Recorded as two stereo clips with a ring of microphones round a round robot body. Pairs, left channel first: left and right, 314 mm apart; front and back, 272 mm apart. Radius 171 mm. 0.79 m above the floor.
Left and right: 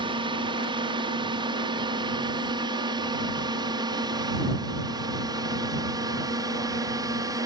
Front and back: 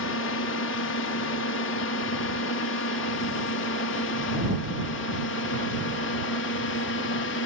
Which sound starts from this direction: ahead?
A drone, at 0.0 s.